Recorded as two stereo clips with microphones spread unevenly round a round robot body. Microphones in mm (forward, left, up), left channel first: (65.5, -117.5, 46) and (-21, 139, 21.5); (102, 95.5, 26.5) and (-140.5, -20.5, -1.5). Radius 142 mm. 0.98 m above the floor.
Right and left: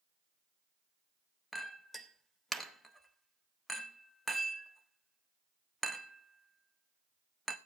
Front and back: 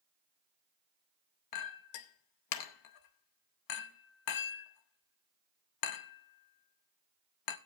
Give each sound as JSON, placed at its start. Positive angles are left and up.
{"t": 1.5, "sound": "a clink", "azimuth_deg": 20, "distance_m": 0.8}